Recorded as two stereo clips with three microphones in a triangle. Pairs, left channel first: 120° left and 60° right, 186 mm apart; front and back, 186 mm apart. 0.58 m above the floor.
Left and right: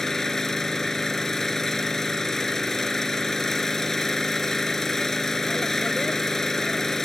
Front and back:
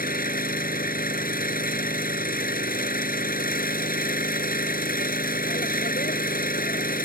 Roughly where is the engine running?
Ahead left.